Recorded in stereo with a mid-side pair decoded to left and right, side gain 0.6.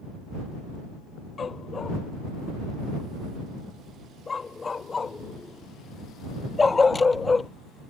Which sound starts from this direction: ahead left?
A dog barking, at 1.4 s.